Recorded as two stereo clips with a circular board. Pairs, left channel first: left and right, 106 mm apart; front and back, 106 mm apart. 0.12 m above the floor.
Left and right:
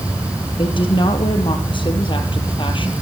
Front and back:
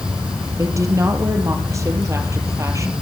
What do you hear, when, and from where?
0.6 s a woman speaking: 125° left, 3 m